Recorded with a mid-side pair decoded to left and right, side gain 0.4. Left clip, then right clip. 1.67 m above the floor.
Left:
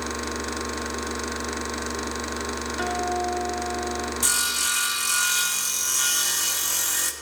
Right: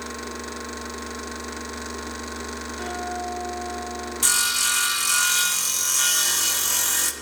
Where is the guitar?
65° left, 3.5 m.